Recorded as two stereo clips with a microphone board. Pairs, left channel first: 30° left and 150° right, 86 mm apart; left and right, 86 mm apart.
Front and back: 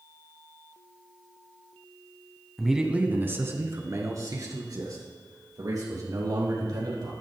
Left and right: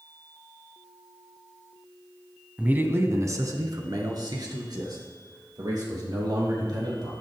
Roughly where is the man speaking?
Ahead right.